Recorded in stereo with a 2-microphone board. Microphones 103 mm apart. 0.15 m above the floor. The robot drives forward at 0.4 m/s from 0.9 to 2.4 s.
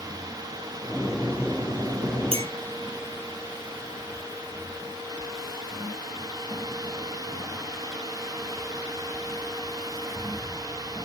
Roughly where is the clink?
Right.